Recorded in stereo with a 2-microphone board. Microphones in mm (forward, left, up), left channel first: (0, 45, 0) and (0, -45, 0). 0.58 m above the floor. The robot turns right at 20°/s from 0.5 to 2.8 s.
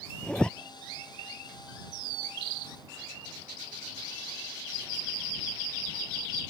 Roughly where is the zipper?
Centre.